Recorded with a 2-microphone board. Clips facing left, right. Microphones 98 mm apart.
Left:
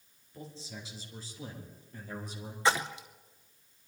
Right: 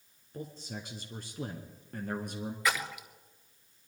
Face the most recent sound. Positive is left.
turn(degrees=30)  # may be behind; listen again after turning